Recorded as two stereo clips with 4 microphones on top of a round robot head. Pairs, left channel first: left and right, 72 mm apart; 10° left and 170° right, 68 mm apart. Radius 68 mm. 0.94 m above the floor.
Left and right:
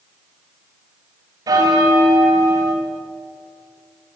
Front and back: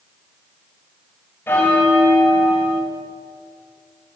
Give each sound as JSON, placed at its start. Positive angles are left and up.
{"t": 1.5, "sound": "a bell", "azimuth_deg": -55, "distance_m": 5.5}